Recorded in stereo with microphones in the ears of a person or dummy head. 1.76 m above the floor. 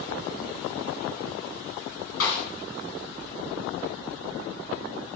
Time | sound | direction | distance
2.2 | a snare drum | 85° left | 2 m